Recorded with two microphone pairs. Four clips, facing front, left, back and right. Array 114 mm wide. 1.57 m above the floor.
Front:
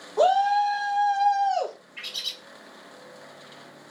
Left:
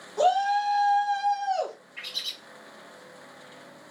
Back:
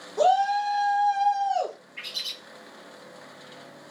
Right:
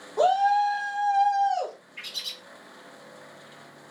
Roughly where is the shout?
Ahead right.